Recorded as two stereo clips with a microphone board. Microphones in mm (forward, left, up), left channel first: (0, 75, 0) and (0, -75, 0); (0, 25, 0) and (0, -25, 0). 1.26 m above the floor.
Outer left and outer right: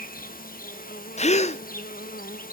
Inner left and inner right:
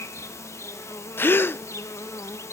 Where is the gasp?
45° left (ahead or behind), 0.5 m.